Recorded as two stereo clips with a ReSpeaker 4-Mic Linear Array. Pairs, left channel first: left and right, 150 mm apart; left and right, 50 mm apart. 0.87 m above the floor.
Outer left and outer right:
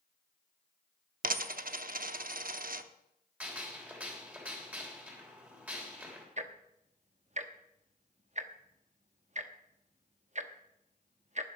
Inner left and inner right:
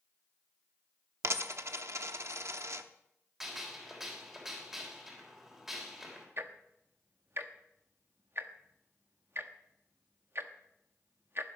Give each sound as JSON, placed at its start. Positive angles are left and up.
{"t": 1.2, "sound": "a dropped coin", "side_deg": -65, "distance_m": 0.7}
{"t": 3.4, "sound": "a gunshot", "side_deg": -10, "distance_m": 3.0}
{"t": 6.4, "sound": "ticking", "side_deg": -50, "distance_m": 0.9}